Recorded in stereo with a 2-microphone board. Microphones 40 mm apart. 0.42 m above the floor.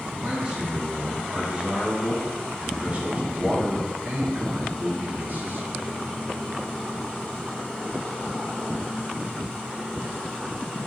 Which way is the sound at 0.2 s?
20° right (ahead or behind).